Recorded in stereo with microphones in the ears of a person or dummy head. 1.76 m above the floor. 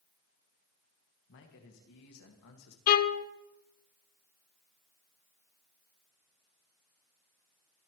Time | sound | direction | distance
1.3 | a man speaking | 55° left (ahead or behind) | 2.5 m
2.9 | a violin | 50° left (ahead or behind) | 0.9 m